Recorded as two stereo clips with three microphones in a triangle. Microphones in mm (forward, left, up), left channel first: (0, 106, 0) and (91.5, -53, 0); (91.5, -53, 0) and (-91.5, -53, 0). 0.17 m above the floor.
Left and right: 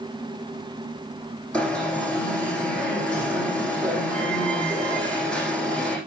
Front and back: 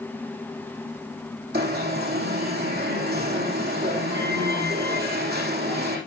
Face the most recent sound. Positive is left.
turn(degrees=-155)